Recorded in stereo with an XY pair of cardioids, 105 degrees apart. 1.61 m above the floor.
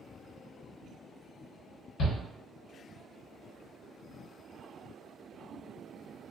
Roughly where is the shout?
Ahead left.